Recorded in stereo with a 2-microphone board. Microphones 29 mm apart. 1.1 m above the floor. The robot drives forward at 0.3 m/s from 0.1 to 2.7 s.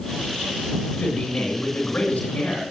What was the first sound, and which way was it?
A man speaking, 55° left (ahead or behind).